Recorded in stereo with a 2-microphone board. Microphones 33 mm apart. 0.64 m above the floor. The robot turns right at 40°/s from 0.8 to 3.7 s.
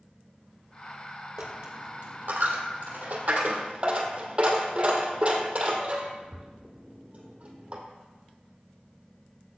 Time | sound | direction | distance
1.4 | a dropped coin | 55° right (ahead or behind) | 2 m